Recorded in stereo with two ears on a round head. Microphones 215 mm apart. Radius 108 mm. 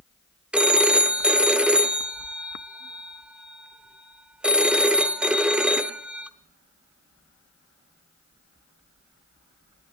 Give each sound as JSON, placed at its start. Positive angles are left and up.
{"t": 0.5, "sound": "a phone ringing", "side_deg": -5, "distance_m": 0.8}